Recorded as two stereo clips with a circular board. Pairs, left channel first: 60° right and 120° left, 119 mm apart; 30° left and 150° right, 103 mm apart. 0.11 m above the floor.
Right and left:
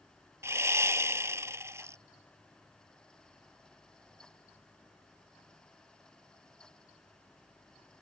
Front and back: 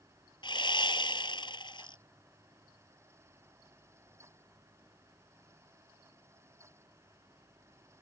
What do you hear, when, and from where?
0.4 s sawing: 55° left